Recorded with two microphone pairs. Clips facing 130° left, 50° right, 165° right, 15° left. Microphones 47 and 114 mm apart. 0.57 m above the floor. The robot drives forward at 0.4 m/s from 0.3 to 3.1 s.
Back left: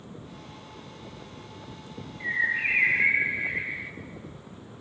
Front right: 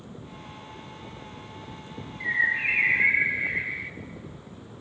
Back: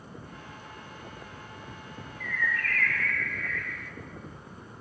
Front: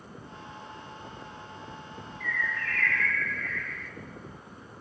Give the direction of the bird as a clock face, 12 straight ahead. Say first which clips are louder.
Front right 2 dB, back 2 dB; 5 o'clock.